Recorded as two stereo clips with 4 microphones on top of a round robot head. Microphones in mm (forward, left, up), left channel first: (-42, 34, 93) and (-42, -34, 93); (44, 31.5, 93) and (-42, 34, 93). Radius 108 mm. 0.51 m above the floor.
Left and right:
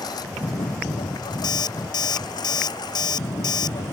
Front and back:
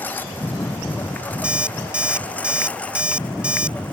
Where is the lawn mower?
65° left; by 3.9 s 70° left.